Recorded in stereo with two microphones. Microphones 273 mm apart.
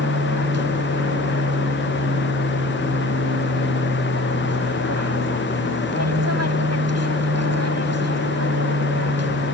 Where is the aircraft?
65° right (ahead or behind).